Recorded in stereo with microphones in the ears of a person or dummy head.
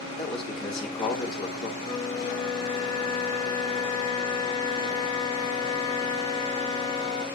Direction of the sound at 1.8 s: 30° left (ahead or behind).